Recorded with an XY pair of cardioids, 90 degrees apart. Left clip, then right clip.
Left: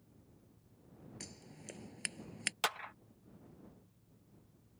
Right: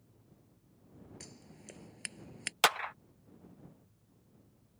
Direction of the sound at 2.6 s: 60° right.